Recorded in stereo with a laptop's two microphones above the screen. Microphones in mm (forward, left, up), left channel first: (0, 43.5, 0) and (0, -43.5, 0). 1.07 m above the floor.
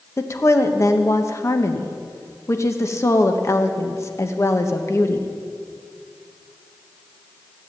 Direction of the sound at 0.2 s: 35° left (ahead or behind).